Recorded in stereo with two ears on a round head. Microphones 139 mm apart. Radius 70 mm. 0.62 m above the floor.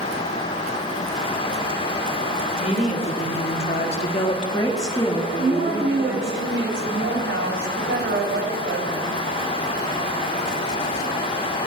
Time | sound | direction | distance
2.6 | a woman speaking | 40° left (ahead or behind) | 2 m
5.4 | a woman speaking | 70° right (ahead or behind) | 3.5 m